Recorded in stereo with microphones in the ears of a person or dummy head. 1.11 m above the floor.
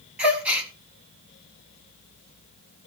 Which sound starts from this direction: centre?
A gasp, at 0.2 s.